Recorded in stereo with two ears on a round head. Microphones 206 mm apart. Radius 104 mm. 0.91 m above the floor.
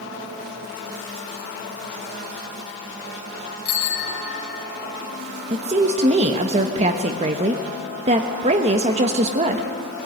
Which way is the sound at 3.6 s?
45° left (ahead or behind).